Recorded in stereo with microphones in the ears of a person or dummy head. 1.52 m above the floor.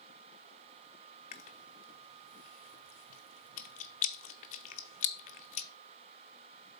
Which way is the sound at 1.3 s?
45° left (ahead or behind).